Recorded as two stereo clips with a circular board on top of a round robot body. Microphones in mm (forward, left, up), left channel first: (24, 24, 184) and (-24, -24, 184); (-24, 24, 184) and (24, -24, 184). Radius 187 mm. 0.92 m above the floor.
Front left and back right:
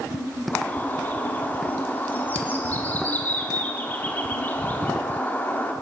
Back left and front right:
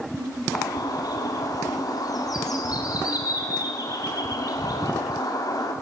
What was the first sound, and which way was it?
A bird, 110° left.